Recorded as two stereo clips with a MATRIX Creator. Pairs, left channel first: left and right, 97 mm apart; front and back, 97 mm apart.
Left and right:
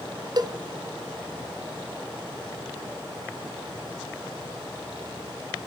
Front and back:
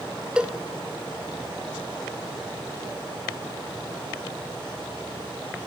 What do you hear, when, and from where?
0.4 s a cowbell: 105° right, 0.6 m